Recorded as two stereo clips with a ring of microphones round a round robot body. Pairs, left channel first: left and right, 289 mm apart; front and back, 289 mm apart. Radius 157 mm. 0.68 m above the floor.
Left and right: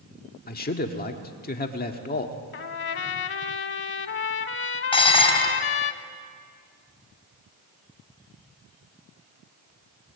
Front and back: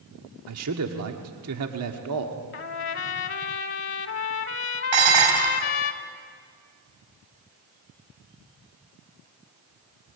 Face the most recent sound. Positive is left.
turn(degrees=160)